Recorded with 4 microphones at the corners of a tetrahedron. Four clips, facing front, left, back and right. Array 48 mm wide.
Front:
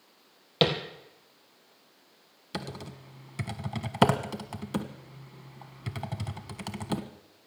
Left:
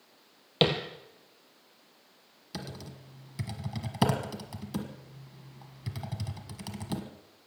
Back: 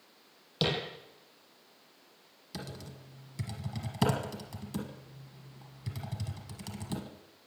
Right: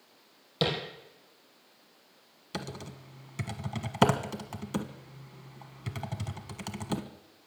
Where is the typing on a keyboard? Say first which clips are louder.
Right 3 dB, front 6 dB; 30° right, 1.3 m.